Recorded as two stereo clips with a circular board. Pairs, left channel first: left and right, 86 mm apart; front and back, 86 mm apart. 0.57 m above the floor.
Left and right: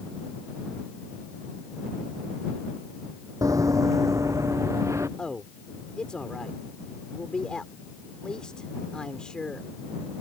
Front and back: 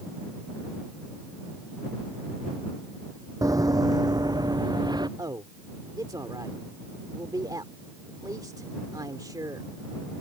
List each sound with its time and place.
3.4 s running footsteps: 135° right; by 5.1 s 145° right
5.2 s a man speaking: 170° left